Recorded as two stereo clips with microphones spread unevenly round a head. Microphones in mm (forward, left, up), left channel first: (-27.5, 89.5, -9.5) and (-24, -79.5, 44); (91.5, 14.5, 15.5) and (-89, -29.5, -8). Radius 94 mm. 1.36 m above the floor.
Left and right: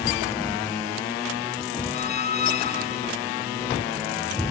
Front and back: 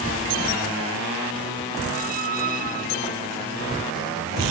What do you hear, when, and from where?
1.9 s a squeak: 145° left